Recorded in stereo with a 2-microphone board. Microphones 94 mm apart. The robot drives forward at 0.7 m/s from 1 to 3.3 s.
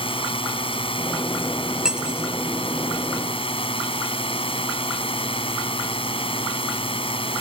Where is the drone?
70° left (ahead or behind).